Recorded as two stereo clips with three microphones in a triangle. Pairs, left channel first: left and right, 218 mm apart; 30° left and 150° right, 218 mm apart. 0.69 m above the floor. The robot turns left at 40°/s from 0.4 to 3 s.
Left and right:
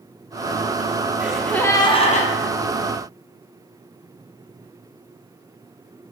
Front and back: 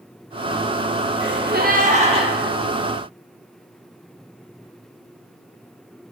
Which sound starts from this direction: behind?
A gasp, at 1.2 s.